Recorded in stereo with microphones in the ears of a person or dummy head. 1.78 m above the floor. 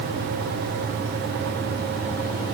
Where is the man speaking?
I don't hear a man speaking.